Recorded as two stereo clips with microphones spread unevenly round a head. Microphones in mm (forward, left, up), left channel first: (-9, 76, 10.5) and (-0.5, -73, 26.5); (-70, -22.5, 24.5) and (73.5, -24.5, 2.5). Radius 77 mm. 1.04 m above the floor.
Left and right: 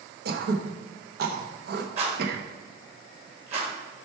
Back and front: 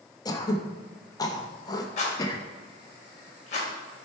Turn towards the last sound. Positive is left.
turn(degrees=-135)